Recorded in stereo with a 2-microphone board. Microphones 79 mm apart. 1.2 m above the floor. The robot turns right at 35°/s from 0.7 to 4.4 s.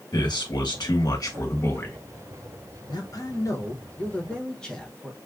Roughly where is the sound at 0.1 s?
Left.